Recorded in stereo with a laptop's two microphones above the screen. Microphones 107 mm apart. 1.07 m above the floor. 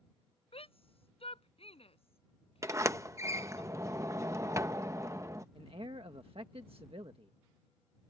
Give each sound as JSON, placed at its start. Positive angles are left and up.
{"t": 0.5, "sound": "a shout", "side_deg": 70}
{"t": 2.6, "sound": "a sliding door", "side_deg": -30}
{"t": 5.5, "sound": "a man speaking", "side_deg": -65}